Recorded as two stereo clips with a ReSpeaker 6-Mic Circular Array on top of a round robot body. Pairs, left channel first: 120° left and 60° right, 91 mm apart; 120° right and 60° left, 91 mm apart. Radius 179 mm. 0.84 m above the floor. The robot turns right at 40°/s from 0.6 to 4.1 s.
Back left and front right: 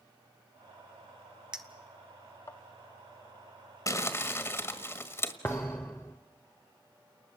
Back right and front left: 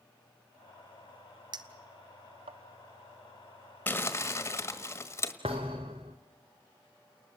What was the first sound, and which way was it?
A clink, 20° left.